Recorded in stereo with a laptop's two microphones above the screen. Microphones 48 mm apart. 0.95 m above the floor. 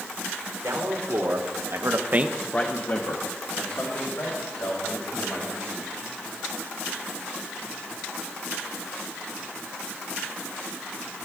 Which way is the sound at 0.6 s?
80° right.